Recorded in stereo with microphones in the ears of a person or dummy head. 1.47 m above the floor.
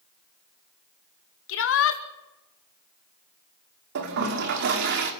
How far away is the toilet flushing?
About 2.5 m.